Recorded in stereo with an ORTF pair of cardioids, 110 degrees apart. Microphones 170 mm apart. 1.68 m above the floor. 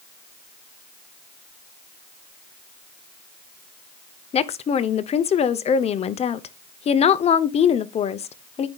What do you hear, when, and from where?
4.3 s a woman speaking: 40° left, 0.8 m